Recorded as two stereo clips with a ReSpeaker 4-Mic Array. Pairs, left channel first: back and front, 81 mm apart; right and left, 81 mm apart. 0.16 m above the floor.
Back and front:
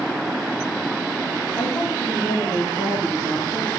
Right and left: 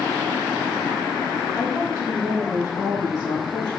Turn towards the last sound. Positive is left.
turn(degrees=115)